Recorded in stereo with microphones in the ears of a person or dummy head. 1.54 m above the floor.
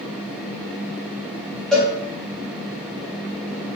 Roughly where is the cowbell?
Centre.